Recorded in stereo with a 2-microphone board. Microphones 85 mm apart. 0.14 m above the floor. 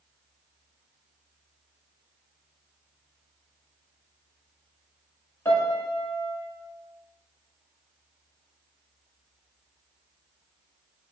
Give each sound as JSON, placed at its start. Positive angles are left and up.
{"t": 5.5, "sound": "a piano", "side_deg": 30, "distance_m": 0.7}